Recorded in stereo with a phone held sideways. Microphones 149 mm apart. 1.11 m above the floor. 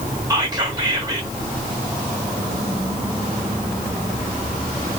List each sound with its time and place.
0.3 s whispering: 25° right (ahead or behind), 1.4 m